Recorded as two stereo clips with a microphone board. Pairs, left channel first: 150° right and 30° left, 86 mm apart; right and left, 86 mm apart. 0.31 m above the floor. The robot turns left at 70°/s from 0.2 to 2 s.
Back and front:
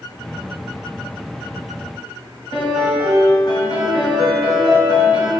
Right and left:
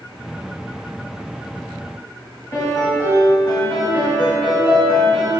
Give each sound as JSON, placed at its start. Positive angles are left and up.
{"t": 2.5, "sound": "a piano", "azimuth_deg": -135, "distance_m": 1.8}